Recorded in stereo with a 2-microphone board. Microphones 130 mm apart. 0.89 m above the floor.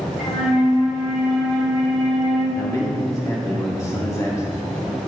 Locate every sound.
0.2 s a flute: 60° left (ahead or behind), 2 m
2.5 s a man speaking: 25° left (ahead or behind), 1.8 m